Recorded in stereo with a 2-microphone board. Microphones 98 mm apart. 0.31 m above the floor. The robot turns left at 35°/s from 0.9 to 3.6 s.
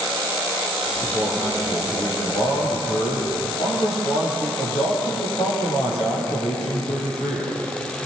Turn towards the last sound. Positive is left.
turn(degrees=95)